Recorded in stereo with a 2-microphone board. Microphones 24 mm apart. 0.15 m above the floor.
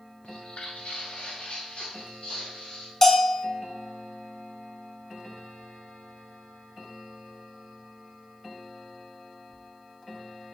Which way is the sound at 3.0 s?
20° left (ahead or behind).